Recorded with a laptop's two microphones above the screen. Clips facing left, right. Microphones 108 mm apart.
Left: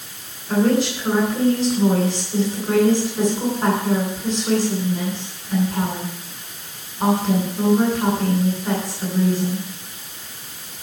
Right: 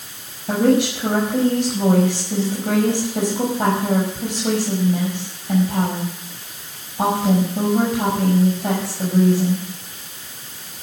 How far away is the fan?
I don't hear a fan.